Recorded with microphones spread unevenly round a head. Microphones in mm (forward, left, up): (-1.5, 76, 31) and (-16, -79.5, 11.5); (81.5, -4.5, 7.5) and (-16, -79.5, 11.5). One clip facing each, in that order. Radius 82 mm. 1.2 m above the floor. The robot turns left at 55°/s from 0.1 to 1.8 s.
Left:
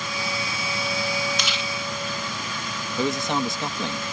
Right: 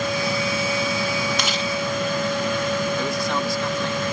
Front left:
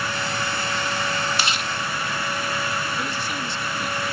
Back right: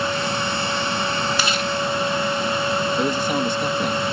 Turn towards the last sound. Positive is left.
turn(degrees=160)